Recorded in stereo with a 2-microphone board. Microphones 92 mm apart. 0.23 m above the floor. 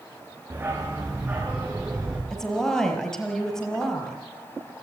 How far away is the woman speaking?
About 5 m.